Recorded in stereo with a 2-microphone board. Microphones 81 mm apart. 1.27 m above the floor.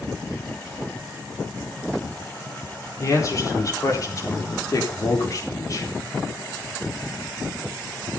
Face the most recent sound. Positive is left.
turn(degrees=45)  # may be behind; listen again after turning